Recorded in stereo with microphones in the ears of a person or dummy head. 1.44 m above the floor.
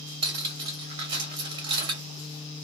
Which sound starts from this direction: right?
Cutlery clinking, at 0.2 s.